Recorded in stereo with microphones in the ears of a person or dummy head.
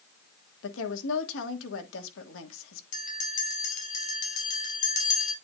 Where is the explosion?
I don't hear an explosion.